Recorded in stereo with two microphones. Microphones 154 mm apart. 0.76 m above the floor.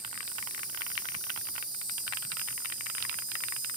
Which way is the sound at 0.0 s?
30° left (ahead or behind).